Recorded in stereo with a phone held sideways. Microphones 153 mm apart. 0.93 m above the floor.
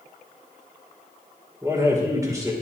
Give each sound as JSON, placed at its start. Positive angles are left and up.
{"t": 1.6, "sound": "a man speaking", "side_deg": -20, "distance_m": 3.5}